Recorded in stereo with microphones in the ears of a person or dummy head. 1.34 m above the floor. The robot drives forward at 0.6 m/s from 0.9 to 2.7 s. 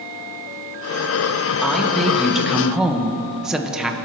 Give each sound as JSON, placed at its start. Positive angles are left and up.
{"t": 1.6, "sound": "a woman speaking", "side_deg": -5, "distance_m": 1.9}